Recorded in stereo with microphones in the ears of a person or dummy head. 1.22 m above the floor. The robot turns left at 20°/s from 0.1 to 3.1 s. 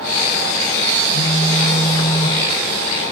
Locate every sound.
1.1 s a phone buzzing: 80° left, 5 m; by 2.4 s 55° left (ahead or behind), 5 m